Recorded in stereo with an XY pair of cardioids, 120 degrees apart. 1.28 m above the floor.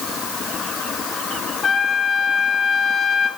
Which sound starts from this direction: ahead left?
A trumpet, at 1.6 s.